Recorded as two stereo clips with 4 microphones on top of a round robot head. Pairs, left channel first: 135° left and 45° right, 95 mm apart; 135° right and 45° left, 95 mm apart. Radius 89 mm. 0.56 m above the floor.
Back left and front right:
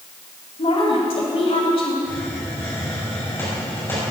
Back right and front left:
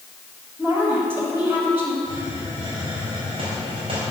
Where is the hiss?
70° left, 4 m.